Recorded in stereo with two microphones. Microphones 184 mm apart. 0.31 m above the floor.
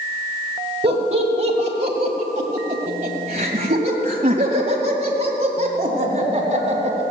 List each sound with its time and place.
0.8 s laughter: 40° right (ahead or behind), 1.8 m; by 7.0 s 30° right (ahead or behind), 3.5 m